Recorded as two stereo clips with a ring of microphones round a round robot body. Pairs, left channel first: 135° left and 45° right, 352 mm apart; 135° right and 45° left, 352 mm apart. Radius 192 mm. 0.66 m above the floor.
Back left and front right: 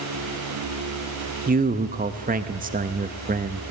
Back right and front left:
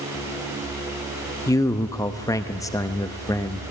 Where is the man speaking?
65° right, 0.7 m.